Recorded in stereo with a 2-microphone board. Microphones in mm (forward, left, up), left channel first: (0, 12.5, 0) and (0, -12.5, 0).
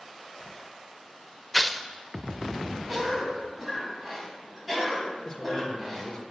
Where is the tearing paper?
5° left (ahead or behind), 0.5 m.